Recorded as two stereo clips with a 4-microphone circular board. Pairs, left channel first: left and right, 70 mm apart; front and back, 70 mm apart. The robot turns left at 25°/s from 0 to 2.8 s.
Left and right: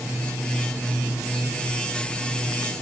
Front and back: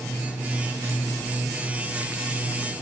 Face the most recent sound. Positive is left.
No sound to turn to.